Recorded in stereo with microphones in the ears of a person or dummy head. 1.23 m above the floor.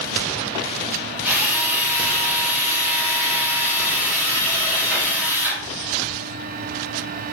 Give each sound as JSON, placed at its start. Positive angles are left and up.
{"t": 1.2, "sound": "a drill", "side_deg": -5, "distance_m": 2.0}